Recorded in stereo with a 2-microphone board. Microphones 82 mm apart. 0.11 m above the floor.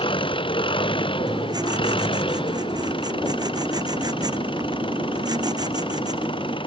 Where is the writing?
50° right (ahead or behind).